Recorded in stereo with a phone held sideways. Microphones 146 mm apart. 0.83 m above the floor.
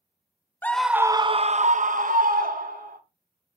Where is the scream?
15° left (ahead or behind), 0.6 m; by 3.0 s 80° right, 1.5 m.